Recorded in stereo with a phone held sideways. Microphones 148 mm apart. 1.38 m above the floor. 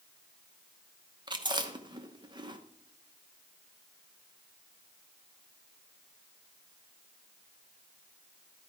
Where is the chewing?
30° right (ahead or behind), 1.0 m.